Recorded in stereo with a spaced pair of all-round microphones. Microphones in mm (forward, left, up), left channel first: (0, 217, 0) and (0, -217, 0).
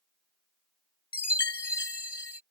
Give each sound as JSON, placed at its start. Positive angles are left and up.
{"t": 1.1, "sound": "a chime", "side_deg": 60}